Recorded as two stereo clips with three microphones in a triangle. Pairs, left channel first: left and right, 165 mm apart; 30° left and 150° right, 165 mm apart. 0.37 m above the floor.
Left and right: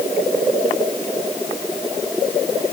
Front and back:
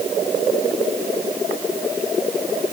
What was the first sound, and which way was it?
Only background noise.